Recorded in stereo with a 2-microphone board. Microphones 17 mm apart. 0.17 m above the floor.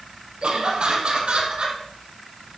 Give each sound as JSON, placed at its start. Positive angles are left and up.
{"t": 0.4, "sound": "laughter", "side_deg": -75, "distance_m": 5.0}